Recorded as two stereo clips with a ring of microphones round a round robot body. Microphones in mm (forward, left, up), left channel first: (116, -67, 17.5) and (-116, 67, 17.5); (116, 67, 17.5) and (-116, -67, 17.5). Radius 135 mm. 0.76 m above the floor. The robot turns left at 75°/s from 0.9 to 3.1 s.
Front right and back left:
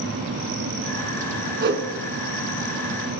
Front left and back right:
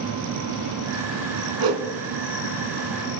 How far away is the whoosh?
About 2.0 m.